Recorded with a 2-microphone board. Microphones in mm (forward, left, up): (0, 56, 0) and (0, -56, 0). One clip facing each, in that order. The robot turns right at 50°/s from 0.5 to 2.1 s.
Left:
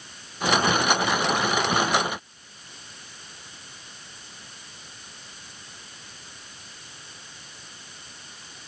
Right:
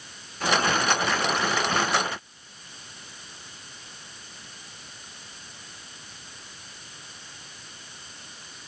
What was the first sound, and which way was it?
Only background noise.